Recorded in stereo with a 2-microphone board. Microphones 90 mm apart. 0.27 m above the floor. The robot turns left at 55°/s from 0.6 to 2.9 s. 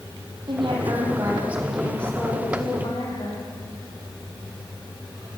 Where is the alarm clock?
No alarm clock in this recording.